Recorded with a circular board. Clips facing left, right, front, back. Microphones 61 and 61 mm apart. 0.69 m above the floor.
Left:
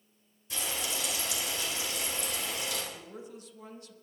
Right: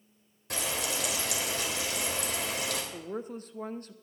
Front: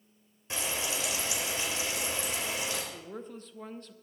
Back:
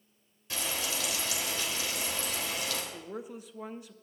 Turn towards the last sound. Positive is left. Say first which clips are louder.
# right 8 dB, back 2 dB
turn(degrees=-100)